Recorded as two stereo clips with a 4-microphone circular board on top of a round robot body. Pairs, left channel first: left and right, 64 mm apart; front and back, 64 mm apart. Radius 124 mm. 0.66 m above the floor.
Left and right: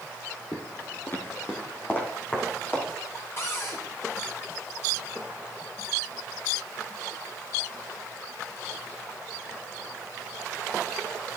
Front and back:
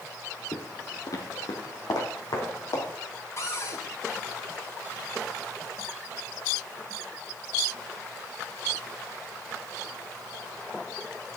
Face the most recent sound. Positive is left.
turn(degrees=45)